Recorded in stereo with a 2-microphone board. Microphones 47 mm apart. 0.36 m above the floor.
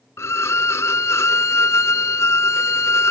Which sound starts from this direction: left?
A violin, at 0.2 s.